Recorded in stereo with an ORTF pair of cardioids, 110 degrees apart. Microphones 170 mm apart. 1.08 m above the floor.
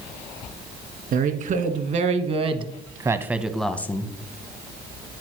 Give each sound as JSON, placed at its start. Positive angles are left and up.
{"t": 1.1, "sound": "a woman speaking", "azimuth_deg": -55, "distance_m": 1.7}